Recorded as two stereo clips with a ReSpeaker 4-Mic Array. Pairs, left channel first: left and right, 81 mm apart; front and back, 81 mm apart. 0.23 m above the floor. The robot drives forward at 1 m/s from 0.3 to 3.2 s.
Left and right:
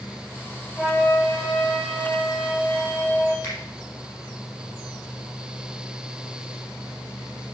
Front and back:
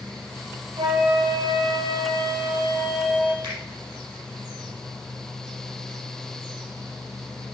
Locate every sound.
0.8 s a flute: 170° left, 3.5 m; by 3.3 s 175° left, 6 m
3.4 s a finger snap: 150° left, 6 m